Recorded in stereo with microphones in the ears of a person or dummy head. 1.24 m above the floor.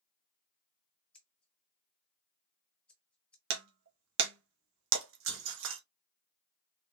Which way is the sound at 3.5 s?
70° right (ahead or behind).